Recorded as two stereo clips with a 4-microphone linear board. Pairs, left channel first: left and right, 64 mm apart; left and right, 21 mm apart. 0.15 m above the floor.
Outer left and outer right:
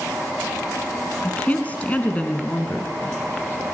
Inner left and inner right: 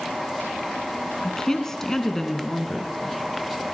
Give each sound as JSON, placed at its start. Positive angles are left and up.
{"t": 1.2, "sound": "a woman speaking", "side_deg": 25, "distance_m": 1.2}